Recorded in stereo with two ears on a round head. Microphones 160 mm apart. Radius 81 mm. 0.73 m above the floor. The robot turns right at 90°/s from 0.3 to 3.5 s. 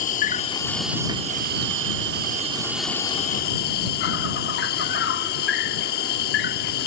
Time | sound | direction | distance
0.0 | an insect | 130° left | ?